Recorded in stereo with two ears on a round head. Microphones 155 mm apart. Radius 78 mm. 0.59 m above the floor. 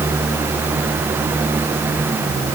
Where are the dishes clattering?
No dishes clattering in this recording.